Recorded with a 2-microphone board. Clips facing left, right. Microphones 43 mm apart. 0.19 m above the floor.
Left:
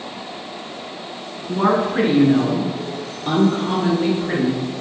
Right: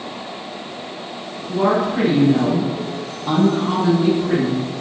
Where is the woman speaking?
40° left (ahead or behind), 2.0 m; by 4.6 s 65° left (ahead or behind), 3.5 m.